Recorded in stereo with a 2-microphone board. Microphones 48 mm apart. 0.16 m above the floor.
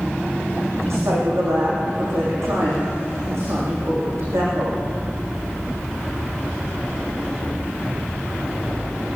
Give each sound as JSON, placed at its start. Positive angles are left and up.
{"t": 0.8, "sound": "a woman speaking", "side_deg": -75, "distance_m": 8.5}